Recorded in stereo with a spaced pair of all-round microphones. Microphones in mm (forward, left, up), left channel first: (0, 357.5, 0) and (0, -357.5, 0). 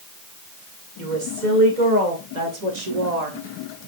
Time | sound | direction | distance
1.0 | a woman speaking | 90° right | 2.5 m